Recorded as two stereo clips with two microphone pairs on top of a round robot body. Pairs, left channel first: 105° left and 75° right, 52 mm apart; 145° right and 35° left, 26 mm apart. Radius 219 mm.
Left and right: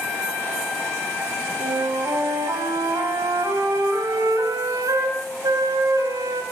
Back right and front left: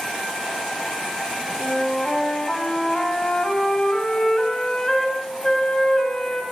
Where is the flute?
75° right, 4 m.